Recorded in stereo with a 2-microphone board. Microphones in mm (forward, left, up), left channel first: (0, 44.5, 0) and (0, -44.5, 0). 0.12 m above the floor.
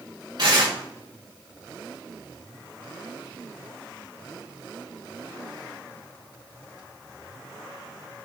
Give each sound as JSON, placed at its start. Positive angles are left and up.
{"t": 0.4, "sound": "tearing paper", "side_deg": -50, "distance_m": 3.0}